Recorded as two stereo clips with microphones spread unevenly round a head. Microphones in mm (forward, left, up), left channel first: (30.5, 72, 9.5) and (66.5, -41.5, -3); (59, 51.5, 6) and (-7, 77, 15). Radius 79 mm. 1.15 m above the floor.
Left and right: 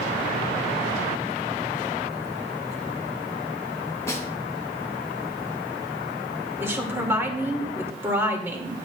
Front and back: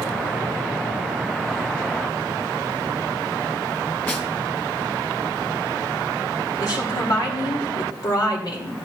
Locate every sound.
4.1 s a snare drum: 45° left, 2 m
6.6 s a woman speaking: 5° right, 2.5 m